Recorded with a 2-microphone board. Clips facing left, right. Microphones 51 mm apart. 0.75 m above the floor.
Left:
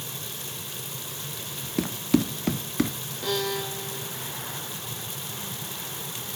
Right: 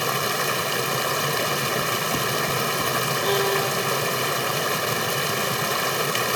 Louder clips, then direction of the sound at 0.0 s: Right 16 dB; 75° right (ahead or behind).